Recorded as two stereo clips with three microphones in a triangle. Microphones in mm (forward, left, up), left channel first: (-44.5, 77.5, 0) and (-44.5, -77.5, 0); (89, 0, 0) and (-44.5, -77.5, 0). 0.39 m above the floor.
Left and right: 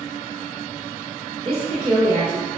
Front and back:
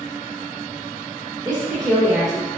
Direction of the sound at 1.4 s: 105° right.